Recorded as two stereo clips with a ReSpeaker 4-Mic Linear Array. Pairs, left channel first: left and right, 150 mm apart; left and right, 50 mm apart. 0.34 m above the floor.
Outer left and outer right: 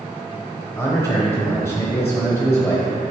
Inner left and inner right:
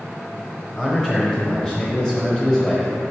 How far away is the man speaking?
About 1.2 m.